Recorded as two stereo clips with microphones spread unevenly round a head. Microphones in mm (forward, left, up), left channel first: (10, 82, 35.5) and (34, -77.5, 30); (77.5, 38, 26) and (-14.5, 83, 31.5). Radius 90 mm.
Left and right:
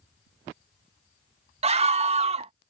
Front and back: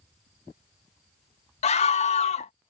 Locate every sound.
1.6 s a scream: 30° right